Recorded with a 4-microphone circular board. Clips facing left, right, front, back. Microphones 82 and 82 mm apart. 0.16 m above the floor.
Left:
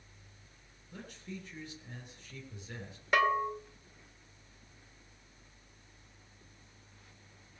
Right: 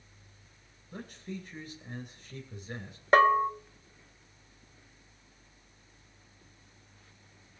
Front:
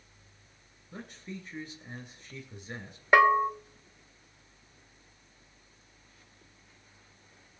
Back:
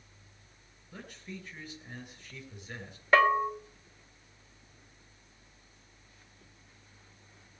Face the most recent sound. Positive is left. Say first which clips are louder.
# right 7 dB, front 3 dB
turn(degrees=-65)